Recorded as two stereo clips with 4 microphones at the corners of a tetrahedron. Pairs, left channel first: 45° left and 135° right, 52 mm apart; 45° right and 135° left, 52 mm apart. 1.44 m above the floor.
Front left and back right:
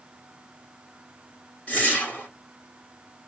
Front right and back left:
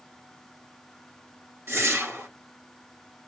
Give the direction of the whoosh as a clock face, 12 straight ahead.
9 o'clock.